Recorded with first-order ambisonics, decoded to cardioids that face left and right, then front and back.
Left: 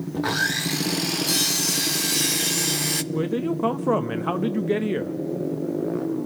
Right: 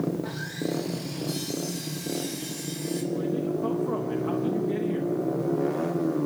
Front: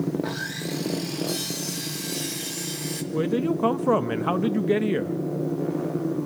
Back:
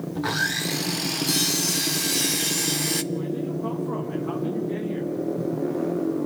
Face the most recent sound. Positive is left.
turn(degrees=40)